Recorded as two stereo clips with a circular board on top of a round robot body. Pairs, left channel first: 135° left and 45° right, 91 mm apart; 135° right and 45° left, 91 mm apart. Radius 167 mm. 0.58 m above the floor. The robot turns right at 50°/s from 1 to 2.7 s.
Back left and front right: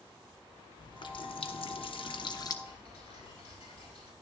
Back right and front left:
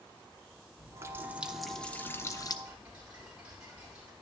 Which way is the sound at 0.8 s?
105° left.